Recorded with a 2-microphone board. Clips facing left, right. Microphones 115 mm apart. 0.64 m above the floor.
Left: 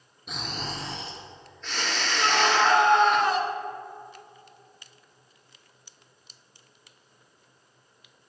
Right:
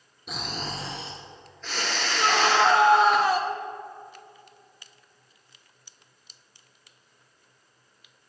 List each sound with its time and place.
0.3 s snoring: centre (ahead or behind), 3 m
2.2 s a scream: 5° right (ahead or behind), 2.5 m